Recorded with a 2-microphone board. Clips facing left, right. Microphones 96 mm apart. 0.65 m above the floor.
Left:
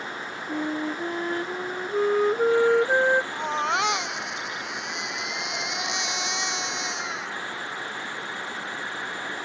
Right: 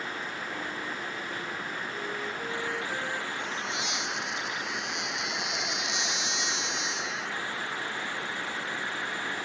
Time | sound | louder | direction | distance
0.5 | a flute | left 8 dB | 75° left (ahead or behind) | ?
3.3 | a baby crying | left 9 dB | 85° left | ?